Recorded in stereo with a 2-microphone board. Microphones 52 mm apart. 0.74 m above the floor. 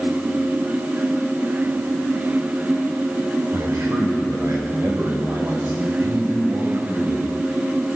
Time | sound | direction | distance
3.5 | a man speaking | 70° right (ahead or behind) | 3 m